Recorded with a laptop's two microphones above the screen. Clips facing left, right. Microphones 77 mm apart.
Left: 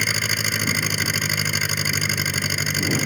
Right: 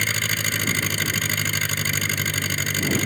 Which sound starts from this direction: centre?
An engine running, at 0.0 s.